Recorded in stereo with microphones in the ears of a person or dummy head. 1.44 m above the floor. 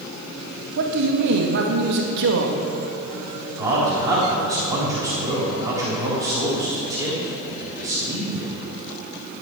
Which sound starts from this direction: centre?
A man speaking, at 3.6 s.